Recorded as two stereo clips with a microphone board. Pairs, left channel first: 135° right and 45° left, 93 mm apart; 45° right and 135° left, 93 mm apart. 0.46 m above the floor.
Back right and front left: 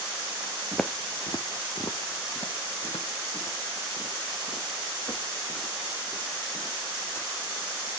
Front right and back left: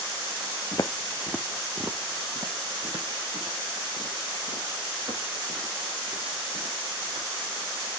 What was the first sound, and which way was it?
Footsteps, 55° right.